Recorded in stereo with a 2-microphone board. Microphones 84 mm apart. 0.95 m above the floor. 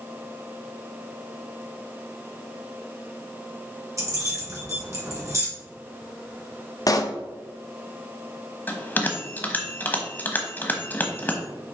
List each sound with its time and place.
4.0 s keys jangling: 40° right (ahead or behind), 2 m
6.9 s a pop: 45° left (ahead or behind), 0.6 m
8.7 s a bell: 20° left (ahead or behind), 1.1 m